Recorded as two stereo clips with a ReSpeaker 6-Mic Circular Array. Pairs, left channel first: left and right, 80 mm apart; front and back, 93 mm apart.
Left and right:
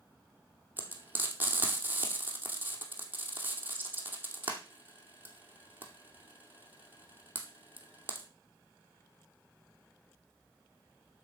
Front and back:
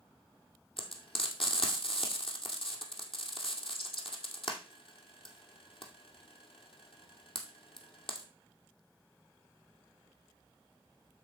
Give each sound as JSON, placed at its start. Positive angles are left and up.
{"t": 0.8, "sound": "frying", "azimuth_deg": -25, "distance_m": 2.5}